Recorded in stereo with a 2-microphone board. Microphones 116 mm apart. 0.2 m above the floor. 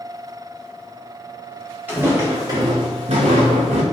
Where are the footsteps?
15° right (ahead or behind), 1.6 m; by 3.8 s 70° right (ahead or behind), 1.2 m.